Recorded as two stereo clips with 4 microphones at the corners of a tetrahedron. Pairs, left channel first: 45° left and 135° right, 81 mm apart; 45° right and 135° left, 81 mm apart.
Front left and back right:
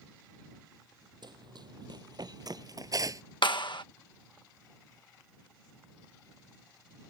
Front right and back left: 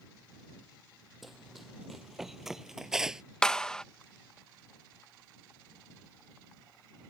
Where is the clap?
35° left.